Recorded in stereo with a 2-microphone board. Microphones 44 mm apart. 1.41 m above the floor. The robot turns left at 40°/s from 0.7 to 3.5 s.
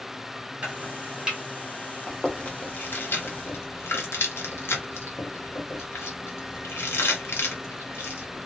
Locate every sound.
0.6 s chopping: 25° right (ahead or behind), 1.2 m; by 1.4 s 10° right (ahead or behind), 1.2 m
2.1 s chewing: 20° left (ahead or behind), 0.7 m; by 8.5 s 65° left (ahead or behind), 0.7 m